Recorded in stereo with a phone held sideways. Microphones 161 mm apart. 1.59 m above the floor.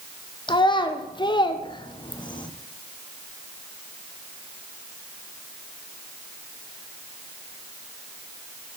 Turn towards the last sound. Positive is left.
turn(degrees=30)  # may be behind; listen again after turning